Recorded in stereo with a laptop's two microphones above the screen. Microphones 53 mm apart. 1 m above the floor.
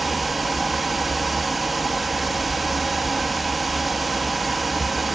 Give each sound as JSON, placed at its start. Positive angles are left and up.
{"t": 0.0, "sound": "a fan", "side_deg": -5, "distance_m": 0.8}